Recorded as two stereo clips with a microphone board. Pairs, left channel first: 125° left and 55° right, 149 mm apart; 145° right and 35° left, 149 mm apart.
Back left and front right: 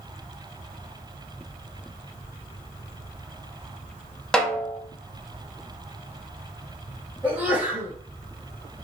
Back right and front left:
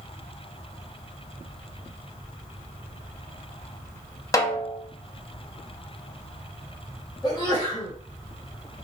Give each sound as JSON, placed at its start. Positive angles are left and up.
{"t": 4.3, "sound": "a snare drum", "azimuth_deg": -160, "distance_m": 0.5}
{"t": 7.2, "sound": "a sneeze", "azimuth_deg": -125, "distance_m": 1.3}